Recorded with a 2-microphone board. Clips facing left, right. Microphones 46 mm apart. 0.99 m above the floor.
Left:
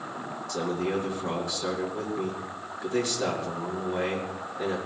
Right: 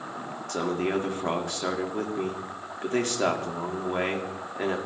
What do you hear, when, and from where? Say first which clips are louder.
0.5 s a man speaking: right 2 dB; 55° right (ahead or behind), 2.5 m